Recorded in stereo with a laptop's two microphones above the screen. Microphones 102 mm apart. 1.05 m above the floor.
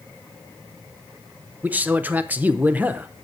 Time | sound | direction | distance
1.6 | a man speaking | 15° right (ahead or behind) | 0.6 m